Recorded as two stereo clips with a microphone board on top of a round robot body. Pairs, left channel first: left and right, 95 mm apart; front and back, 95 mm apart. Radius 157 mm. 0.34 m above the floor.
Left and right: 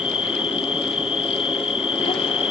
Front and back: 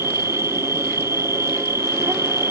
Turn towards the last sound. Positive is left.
turn(degrees=115)